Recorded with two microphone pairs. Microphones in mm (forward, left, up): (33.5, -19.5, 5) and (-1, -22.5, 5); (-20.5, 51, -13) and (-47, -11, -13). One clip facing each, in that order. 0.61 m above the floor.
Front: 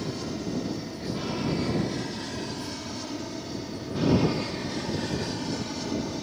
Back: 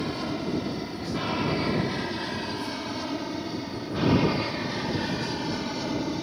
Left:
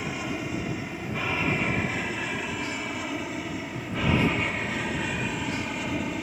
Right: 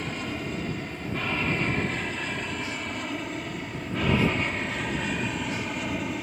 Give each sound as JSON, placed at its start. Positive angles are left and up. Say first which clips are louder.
{"t": 0.0, "sound": "an aircraft", "louder": "back 3 dB, left 1 dB", "azimuth_deg": 145}